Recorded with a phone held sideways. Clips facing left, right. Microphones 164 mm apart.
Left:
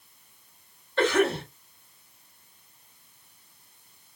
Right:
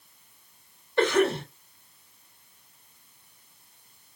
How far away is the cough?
About 2 m.